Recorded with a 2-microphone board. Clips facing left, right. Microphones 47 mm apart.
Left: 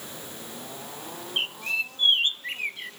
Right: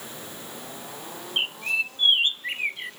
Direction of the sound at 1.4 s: 15° right (ahead or behind).